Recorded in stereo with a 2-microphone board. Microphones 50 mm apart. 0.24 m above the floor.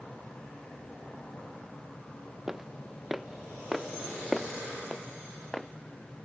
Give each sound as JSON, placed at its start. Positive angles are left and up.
{"t": 2.5, "sound": "footsteps", "side_deg": -10}